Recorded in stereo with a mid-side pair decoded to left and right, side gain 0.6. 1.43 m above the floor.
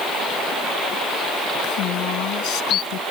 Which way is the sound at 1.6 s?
65° left.